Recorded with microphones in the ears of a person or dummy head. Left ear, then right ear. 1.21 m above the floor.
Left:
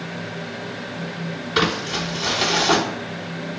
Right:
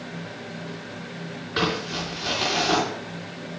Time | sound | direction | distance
1.6 | crumpling | 30° left (ahead or behind) | 3.5 m